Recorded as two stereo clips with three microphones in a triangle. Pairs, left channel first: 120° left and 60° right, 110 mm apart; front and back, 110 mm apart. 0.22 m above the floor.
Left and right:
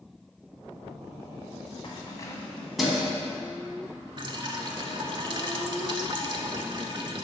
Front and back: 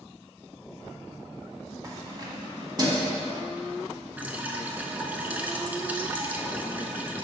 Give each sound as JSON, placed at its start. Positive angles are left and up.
{"t": 1.8, "sound": "keys jangling", "azimuth_deg": 135, "distance_m": 1.2}
{"t": 4.2, "sound": "dripping", "azimuth_deg": -105, "distance_m": 0.5}